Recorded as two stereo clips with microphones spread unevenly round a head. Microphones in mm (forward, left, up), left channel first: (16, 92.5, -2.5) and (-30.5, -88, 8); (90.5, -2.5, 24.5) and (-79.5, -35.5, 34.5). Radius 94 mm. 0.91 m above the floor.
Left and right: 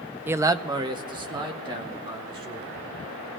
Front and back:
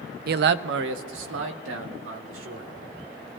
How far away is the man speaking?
About 0.5 m.